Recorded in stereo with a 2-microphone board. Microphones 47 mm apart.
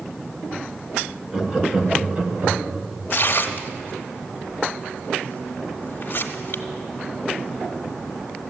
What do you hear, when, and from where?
1.3 s laughter: 15° right (ahead or behind), 1.5 m; by 2.8 s 40° right (ahead or behind), 1.3 m
3.1 s tearing paper: 50° left (ahead or behind), 1.0 m